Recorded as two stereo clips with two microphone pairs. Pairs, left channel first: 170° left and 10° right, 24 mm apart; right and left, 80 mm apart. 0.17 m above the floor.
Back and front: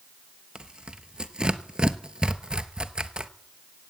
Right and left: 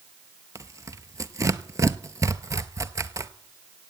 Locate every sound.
0.6 s tearing paper: 40° left, 0.6 m